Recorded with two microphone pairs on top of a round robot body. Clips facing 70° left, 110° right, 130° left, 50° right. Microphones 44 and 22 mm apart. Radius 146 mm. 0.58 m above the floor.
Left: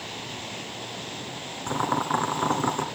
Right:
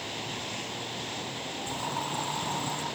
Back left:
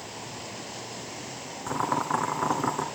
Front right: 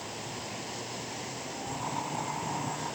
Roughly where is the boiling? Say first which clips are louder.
Left 9 dB, back left 9 dB; left.